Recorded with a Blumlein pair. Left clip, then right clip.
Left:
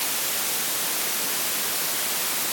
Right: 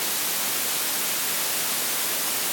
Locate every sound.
Only background noise.